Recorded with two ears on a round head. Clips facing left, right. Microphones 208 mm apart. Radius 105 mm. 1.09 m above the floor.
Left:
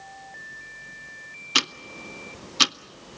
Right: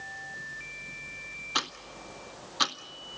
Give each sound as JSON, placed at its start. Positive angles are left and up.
{"t": 1.6, "sound": "ticking", "side_deg": 35, "distance_m": 0.5}